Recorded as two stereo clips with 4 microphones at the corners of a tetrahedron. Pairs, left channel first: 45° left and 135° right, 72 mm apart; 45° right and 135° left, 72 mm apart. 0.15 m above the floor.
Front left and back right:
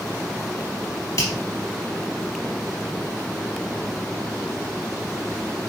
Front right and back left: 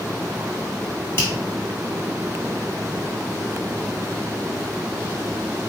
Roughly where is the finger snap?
Ahead.